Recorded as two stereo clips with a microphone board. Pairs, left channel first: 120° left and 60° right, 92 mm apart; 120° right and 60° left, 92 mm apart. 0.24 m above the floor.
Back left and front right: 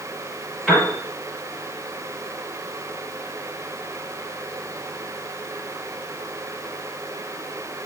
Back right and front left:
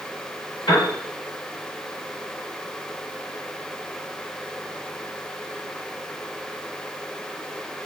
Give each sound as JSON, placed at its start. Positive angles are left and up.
{"t": 0.7, "sound": "a piano", "azimuth_deg": -155, "distance_m": 2.0}